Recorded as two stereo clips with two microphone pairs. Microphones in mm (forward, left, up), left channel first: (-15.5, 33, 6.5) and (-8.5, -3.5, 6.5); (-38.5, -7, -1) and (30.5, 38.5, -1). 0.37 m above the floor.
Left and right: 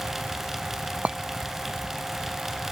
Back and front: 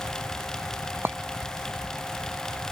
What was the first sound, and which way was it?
A clink, 30° right.